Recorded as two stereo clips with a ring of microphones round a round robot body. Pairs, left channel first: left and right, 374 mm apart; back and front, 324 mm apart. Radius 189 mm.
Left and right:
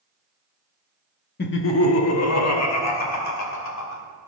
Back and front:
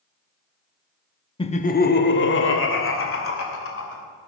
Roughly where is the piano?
No piano in this recording.